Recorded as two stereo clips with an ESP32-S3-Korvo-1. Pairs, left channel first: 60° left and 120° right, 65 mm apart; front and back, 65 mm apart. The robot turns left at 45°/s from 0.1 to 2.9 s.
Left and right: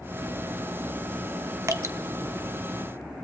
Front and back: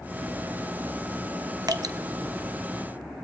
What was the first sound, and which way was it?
Dripping, 160° right.